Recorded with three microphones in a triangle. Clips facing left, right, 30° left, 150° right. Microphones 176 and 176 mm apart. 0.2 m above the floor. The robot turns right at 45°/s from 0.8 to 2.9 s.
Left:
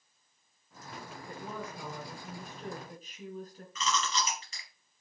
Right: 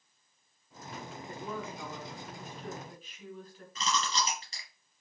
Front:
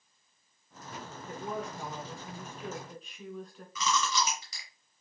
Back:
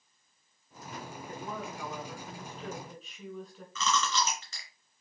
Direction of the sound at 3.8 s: 45° right.